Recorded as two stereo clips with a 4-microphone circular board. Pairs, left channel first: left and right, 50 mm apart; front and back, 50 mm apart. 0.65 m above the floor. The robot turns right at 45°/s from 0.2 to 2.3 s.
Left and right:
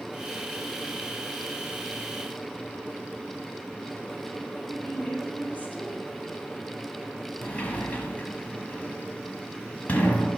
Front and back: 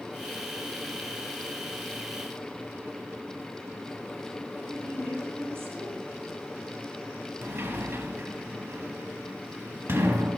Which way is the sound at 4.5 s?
145° left.